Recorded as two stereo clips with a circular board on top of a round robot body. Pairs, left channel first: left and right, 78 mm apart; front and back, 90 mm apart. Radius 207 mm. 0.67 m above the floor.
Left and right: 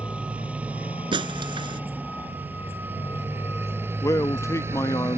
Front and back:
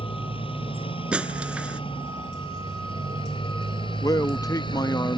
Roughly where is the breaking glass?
Right.